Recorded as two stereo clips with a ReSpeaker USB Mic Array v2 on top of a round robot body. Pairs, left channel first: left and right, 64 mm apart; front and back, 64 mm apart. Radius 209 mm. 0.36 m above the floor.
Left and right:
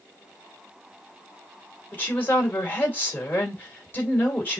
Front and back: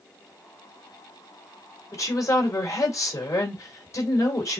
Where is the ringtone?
No ringtone in this recording.